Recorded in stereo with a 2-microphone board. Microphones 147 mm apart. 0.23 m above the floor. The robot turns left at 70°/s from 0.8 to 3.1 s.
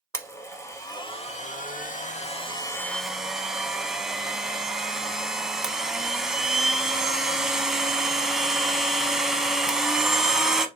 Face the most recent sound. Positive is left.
turn(degrees=-5)